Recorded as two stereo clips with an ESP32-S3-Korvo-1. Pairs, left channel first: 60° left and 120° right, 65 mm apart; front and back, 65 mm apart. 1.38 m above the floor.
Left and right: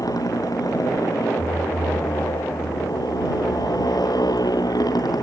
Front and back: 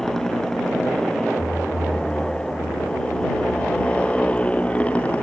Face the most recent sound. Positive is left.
turn(degrees=70)